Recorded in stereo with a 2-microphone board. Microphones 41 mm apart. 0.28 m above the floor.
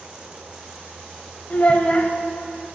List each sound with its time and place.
1.5 s a child speaking: 35° left (ahead or behind), 0.5 m